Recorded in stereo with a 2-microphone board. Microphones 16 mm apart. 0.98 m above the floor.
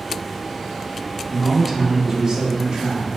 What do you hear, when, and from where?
1.3 s a man speaking: 10° left (ahead or behind), 0.9 m; by 3.1 s 55° right (ahead or behind), 1.3 m